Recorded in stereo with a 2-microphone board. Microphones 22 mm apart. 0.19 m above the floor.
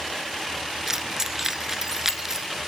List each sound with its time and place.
0.9 s keys jangling: 20° right (ahead or behind), 1.6 m